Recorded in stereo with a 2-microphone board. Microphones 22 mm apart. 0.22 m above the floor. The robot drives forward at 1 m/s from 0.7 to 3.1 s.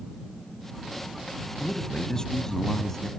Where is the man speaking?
30° left (ahead or behind), 1.3 m; by 3.1 s 20° left (ahead or behind), 1.8 m.